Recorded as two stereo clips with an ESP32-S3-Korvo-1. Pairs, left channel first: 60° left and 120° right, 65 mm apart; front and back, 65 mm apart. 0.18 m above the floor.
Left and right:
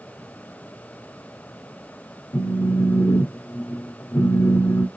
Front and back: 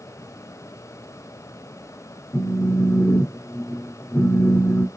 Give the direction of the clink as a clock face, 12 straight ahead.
I don't hear a clink.